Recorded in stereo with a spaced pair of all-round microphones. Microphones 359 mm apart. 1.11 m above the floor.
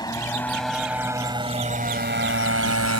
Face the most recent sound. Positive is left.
turn(degrees=-50)  # may be behind; listen again after turning